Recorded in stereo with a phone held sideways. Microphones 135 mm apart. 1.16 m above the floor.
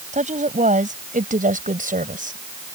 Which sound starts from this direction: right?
A woman speaking, at 0.1 s.